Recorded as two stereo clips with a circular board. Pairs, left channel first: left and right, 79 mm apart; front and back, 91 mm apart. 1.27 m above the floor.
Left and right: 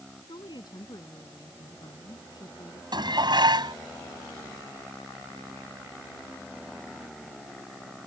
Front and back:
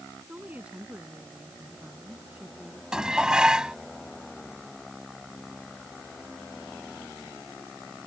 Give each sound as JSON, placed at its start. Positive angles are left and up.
{"t": 0.3, "sound": "a woman speaking", "azimuth_deg": 105}
{"t": 2.9, "sound": "dishes clattering", "azimuth_deg": -100}